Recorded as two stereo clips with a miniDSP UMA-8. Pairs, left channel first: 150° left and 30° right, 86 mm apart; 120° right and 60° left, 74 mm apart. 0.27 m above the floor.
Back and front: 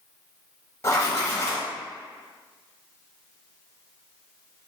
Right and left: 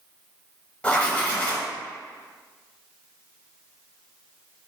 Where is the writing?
Straight behind, 0.6 m.